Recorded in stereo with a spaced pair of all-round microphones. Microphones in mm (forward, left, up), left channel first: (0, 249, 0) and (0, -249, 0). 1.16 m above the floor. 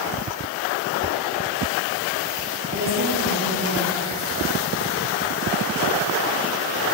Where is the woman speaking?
25° right (ahead or behind), 2 m.